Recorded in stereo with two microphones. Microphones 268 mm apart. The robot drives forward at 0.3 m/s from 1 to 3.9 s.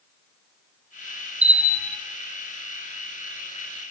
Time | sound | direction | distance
1.4 | a bell | 25° right (ahead or behind) | 1.1 m